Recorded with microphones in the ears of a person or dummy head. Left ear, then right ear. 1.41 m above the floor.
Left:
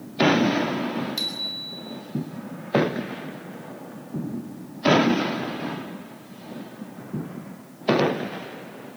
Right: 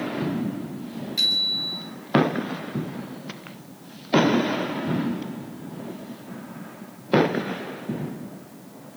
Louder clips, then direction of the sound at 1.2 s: Right 12 dB; 5° left (ahead or behind).